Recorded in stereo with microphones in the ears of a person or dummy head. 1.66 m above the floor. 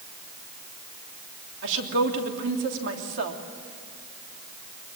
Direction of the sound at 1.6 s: 70° right (ahead or behind).